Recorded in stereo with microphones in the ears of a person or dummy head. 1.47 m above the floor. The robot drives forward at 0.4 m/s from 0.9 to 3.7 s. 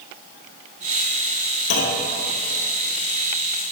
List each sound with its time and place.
1.7 s a clunk: 60° left (ahead or behind), 2 m; by 2.1 s 65° left (ahead or behind), 2.0 m